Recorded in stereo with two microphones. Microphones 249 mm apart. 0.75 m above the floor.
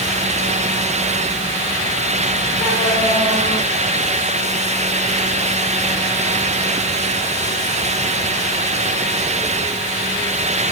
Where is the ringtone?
No ringtone in this recording.